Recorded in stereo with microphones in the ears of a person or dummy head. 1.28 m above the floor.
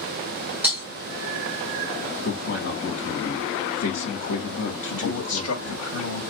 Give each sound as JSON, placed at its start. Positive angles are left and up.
{"t": 0.6, "sound": "breaking glass", "side_deg": -15, "distance_m": 2.5}
{"t": 2.2, "sound": "a man speaking", "side_deg": 50, "distance_m": 1.6}
{"t": 4.9, "sound": "a man speaking", "side_deg": 85, "distance_m": 1.7}